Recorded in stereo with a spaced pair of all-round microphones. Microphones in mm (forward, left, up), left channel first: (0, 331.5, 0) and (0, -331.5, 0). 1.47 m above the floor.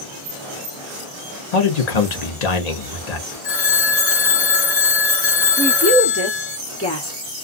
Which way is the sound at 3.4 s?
75° left (ahead or behind).